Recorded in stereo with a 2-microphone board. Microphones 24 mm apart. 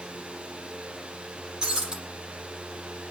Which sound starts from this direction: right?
Breaking glass, at 1.6 s.